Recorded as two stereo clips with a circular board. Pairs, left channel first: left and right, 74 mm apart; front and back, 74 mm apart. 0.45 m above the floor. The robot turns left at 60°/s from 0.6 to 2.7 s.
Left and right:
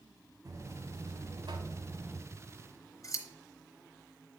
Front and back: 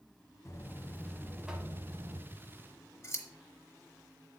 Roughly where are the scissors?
Left.